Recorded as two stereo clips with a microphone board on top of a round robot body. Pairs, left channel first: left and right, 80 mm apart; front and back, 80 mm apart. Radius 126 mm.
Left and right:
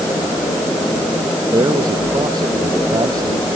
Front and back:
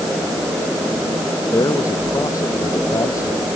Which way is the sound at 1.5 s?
55° right.